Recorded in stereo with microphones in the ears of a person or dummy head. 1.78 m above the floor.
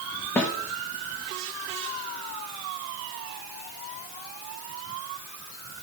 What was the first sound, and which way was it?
A snare drum, 5° left (ahead or behind).